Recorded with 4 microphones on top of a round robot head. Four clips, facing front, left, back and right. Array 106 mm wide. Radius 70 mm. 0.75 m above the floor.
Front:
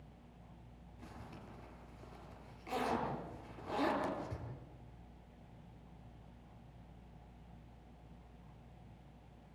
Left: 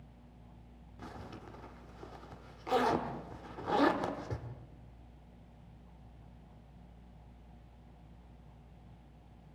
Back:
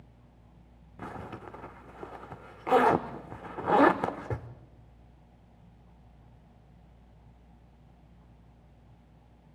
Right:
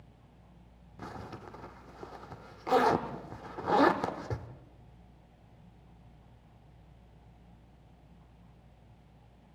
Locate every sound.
1.0 s a zipper: 160° right, 1.2 m